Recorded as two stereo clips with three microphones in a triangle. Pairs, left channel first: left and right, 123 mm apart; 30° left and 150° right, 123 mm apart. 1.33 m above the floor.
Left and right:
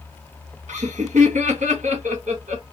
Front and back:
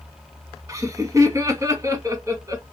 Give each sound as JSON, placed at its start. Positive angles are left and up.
{"t": 0.7, "sound": "laughter", "azimuth_deg": -85, "distance_m": 1.7}